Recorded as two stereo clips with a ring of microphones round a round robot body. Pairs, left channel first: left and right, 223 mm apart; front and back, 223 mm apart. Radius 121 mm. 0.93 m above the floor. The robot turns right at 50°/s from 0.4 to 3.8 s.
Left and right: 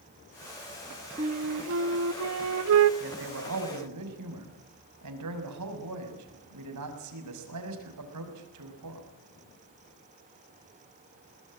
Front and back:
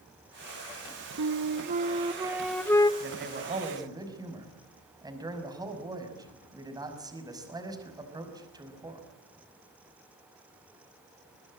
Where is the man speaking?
145° right, 6 m; by 9.1 s 105° right, 6 m.